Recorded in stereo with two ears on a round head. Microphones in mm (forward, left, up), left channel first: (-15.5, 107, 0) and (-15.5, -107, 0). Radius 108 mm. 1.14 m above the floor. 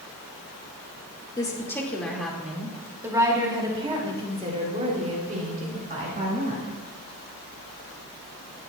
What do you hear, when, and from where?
1.4 s a woman speaking: 20° left (ahead or behind), 1.9 m; by 6.8 s 40° right (ahead or behind), 4 m